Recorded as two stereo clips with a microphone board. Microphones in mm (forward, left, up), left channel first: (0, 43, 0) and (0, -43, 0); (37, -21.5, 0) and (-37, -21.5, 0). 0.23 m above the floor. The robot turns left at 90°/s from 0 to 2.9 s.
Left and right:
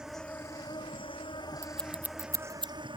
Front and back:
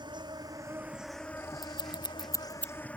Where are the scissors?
20° left; by 2.7 s 80° right.